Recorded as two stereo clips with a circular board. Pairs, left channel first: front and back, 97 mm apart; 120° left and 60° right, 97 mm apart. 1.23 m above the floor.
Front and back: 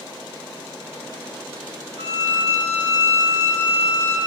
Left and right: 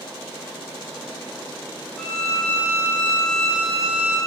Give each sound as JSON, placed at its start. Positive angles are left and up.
{"t": 2.0, "sound": "a violin", "azimuth_deg": -160, "distance_m": 9.5}